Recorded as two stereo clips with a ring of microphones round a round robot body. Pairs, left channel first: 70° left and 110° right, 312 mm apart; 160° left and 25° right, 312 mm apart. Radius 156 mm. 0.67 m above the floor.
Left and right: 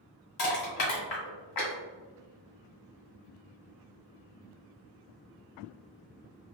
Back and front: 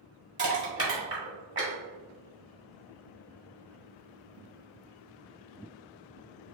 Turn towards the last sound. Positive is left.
turn(degrees=40)